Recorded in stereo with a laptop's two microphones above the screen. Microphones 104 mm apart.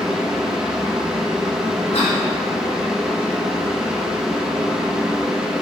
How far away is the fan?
About 0.9 m.